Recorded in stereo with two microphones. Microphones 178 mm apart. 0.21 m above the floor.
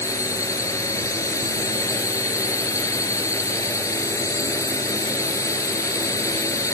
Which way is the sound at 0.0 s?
20° left (ahead or behind).